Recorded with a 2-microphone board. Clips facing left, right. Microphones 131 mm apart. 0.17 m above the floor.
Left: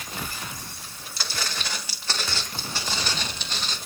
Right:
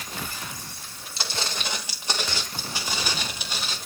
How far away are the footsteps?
About 4 m.